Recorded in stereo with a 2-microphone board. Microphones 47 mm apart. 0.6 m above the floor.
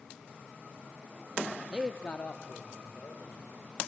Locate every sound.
1.7 s a man speaking: 20° right (ahead or behind), 0.5 m; by 3.5 s 60° left (ahead or behind), 2.5 m